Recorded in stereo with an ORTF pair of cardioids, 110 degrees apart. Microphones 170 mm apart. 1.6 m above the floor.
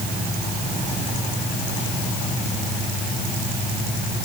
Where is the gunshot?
I don't hear a gunshot.